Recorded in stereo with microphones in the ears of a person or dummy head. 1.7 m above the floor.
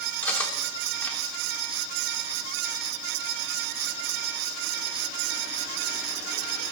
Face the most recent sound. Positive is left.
turn(degrees=5)  # may be behind; listen again after turning